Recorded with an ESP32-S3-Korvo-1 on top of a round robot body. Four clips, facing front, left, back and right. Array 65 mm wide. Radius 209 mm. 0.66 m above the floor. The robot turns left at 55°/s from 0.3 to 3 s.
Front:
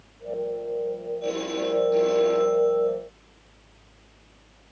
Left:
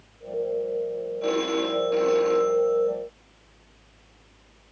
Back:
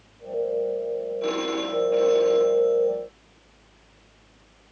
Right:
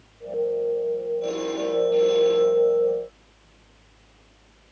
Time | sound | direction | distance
1.2 | a phone ringing | 150° left | 7 m